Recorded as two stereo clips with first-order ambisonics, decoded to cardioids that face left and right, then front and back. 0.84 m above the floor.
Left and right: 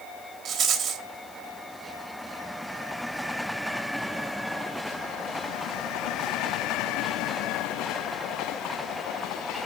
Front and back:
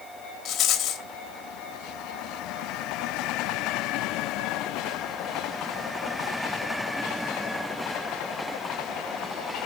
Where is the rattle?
40° right, 1.0 m.